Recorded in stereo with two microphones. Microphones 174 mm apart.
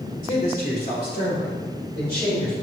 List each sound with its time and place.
0.2 s a man speaking: 50° left (ahead or behind), 3 m; by 2.5 s 75° left (ahead or behind), 5 m